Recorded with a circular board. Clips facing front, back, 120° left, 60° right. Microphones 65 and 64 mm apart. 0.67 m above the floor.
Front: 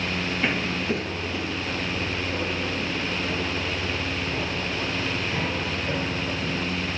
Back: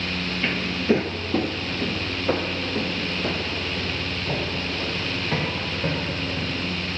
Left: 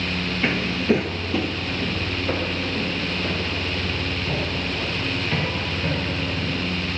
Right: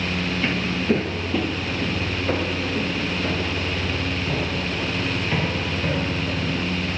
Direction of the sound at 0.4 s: 70° left.